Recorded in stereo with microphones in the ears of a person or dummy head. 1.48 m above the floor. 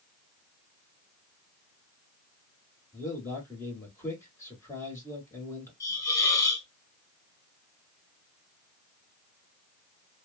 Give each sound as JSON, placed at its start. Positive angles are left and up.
{"t": 2.9, "sound": "a man speaking", "side_deg": 15, "distance_m": 1.4}
{"t": 5.8, "sound": "a hiss", "side_deg": 15, "distance_m": 0.9}